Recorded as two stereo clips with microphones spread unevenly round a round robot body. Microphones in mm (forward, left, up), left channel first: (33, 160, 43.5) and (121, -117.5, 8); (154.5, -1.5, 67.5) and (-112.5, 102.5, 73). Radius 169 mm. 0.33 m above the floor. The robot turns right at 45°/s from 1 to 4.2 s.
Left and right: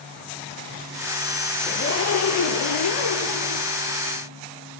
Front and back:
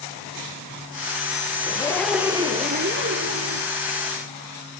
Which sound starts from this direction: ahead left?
A zipper, at 1.7 s.